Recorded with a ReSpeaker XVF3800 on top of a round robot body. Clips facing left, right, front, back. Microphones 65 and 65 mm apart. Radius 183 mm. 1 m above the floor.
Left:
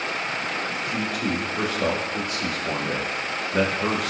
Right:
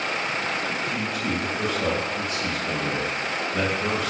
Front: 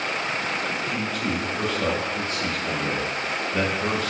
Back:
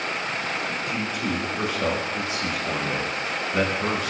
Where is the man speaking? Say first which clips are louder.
Left 1 dB, even; 105° left, 1.7 m.